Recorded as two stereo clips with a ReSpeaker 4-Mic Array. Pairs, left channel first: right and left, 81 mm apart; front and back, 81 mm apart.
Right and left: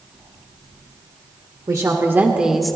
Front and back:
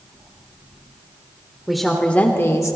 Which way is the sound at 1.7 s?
95° left.